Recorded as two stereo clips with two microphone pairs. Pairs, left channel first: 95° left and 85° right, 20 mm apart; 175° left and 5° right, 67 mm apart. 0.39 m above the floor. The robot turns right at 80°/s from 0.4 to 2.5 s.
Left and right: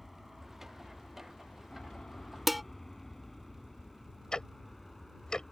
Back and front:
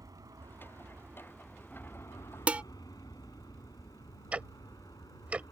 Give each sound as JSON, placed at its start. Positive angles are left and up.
{"t": 0.0, "sound": "an aircraft", "azimuth_deg": 0}
{"t": 2.5, "sound": "dishes clattering", "azimuth_deg": -15}
{"t": 4.3, "sound": "ticking", "azimuth_deg": 60}